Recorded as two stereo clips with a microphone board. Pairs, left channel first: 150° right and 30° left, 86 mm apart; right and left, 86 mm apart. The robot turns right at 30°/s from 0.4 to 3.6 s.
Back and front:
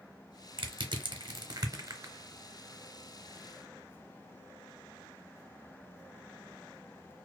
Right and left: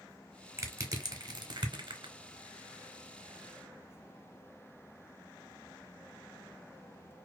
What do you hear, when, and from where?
0.6 s crushing: 35° left, 0.6 m; by 2.1 s 85° left, 0.6 m